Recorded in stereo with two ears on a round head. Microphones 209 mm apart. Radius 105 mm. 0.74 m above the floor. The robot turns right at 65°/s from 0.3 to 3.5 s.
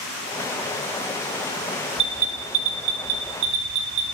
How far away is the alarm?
About 3.5 m.